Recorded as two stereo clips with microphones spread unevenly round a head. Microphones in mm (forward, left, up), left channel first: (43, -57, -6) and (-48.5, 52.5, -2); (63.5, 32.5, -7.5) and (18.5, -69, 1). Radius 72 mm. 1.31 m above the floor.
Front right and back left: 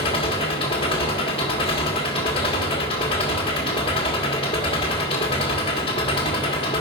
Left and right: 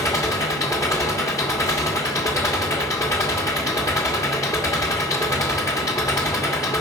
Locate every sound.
0.0 s an engine running: 5° left, 1.5 m